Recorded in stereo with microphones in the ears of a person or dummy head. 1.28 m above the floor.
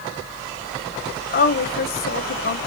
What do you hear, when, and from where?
1.3 s a woman speaking: 45° left (ahead or behind), 0.8 m